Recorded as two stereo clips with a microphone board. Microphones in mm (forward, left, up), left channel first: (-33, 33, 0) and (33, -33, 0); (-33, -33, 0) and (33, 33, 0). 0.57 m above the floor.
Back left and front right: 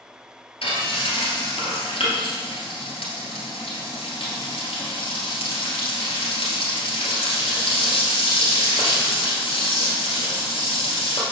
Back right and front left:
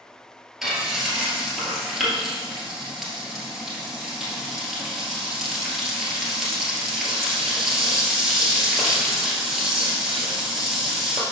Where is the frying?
130° left, 1.9 m.